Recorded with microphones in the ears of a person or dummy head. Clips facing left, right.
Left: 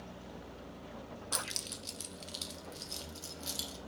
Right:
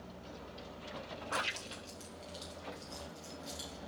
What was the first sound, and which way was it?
Keys jangling, 60° left (ahead or behind).